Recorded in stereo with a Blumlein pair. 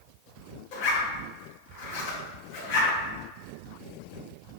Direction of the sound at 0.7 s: 45° left.